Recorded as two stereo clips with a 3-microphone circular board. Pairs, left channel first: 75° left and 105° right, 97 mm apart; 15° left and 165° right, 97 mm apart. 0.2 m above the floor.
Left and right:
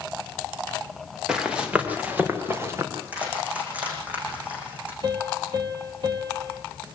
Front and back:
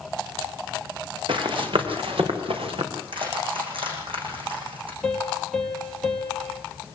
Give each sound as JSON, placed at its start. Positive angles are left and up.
{"t": 1.3, "sound": "running footsteps", "azimuth_deg": 175, "distance_m": 5.5}
{"t": 2.9, "sound": "crushing", "azimuth_deg": 180, "distance_m": 8.5}
{"t": 5.0, "sound": "a piano", "azimuth_deg": -65, "distance_m": 3.5}